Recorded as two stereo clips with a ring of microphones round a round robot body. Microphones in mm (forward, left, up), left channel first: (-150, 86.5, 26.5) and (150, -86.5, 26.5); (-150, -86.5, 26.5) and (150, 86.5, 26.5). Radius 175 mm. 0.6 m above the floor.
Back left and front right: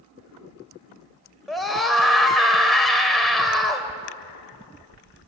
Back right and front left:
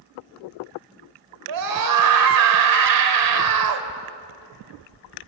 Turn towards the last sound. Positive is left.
turn(degrees=60)